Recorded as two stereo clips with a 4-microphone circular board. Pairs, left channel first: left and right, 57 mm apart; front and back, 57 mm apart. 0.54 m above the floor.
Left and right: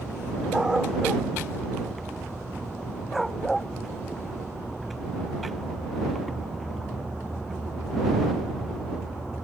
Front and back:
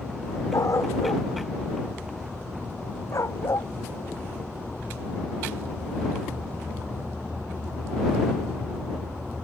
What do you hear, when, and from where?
0.5 s a dog barking: 15° right; by 3.7 s 5° left